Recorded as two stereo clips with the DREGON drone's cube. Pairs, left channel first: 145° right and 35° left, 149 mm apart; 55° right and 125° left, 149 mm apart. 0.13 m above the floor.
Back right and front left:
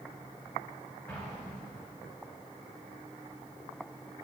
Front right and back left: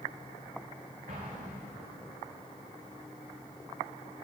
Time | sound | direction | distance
1.1 | an explosion | 135° left | 6 m